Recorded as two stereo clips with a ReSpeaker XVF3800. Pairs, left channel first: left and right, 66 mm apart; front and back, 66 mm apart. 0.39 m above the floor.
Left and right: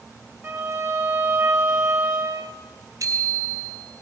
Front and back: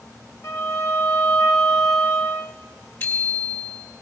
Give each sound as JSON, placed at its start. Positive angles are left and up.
{"t": 0.4, "sound": "a violin", "azimuth_deg": -35, "distance_m": 1.5}
{"t": 3.0, "sound": "a bicycle bell", "azimuth_deg": -55, "distance_m": 3.0}